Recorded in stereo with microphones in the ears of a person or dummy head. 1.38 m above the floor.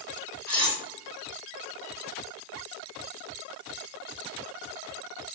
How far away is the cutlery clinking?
About 0.6 m.